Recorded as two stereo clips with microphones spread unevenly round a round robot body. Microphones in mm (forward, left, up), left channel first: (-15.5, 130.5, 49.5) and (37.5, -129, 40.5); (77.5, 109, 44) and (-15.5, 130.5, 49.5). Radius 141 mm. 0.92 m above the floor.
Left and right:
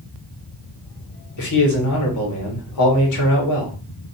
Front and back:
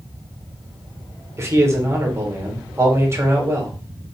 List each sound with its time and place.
1.4 s a man speaking: 105° left, 2 m